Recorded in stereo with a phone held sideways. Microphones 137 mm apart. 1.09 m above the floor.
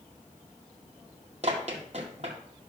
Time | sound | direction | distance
1.4 | running footsteps | 50° right (ahead or behind) | 2 m